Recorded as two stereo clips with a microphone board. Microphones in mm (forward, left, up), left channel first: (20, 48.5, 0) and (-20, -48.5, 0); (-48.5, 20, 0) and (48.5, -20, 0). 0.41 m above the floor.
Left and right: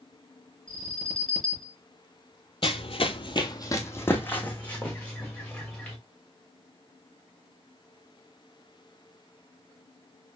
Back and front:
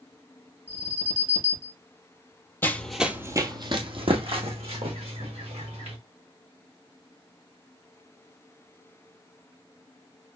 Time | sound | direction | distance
0.7 | an alarm | 15° right | 4 m
2.6 | running footsteps | 90° left | 0.8 m